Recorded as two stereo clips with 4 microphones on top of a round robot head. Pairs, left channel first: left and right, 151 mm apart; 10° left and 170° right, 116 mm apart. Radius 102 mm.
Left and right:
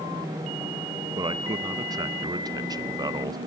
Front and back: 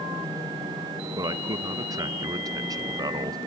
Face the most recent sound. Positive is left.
turn(degrees=-135)